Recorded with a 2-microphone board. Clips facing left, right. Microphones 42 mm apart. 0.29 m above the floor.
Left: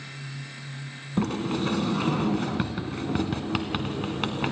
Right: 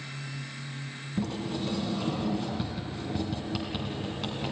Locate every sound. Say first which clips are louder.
1.2 s a sliding door: left 6 dB; 60° left (ahead or behind), 1.4 m